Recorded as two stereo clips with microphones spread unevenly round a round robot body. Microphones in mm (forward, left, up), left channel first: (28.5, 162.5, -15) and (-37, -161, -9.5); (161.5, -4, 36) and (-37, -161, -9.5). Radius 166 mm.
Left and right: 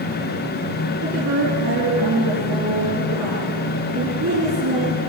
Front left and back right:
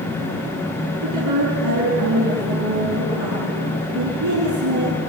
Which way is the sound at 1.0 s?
150° right.